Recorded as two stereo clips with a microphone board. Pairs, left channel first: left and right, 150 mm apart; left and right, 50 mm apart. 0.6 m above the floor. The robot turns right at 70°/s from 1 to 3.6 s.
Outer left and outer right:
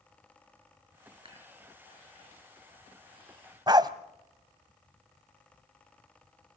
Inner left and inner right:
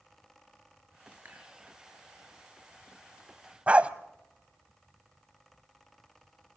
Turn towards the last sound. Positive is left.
turn(degrees=-30)  # may be behind; listen again after turning